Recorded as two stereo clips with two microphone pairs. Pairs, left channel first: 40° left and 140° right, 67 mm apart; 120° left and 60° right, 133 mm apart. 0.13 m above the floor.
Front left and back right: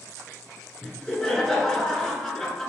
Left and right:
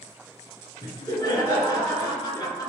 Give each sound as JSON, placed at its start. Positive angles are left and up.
{"t": 0.8, "sound": "laughter", "azimuth_deg": 115, "distance_m": 1.4}